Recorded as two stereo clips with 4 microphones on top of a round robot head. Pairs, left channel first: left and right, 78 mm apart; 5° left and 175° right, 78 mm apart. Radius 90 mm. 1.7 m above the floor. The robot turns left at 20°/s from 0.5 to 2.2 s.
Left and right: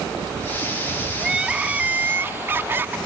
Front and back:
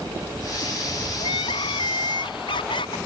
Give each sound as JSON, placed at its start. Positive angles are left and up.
{"t": 1.2, "sound": "crying", "azimuth_deg": -5}